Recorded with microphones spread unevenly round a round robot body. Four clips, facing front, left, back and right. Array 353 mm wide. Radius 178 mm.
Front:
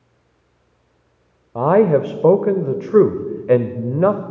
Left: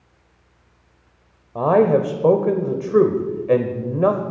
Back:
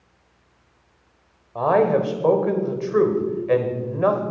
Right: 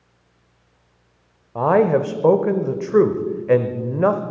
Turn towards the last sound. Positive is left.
turn(degrees=0)